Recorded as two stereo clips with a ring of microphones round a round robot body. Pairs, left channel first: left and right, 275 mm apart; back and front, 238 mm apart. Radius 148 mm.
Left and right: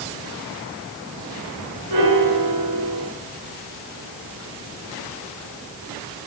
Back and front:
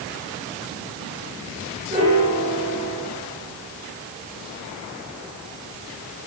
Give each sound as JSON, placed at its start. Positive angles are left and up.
{"t": 1.9, "sound": "a piano", "azimuth_deg": -70, "distance_m": 2.0}